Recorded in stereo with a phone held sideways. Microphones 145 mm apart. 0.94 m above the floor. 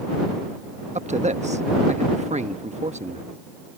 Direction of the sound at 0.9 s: 50° right (ahead or behind).